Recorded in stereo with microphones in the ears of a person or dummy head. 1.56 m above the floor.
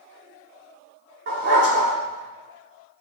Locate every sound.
1.3 s a dog barking: 55° right (ahead or behind), 1.8 m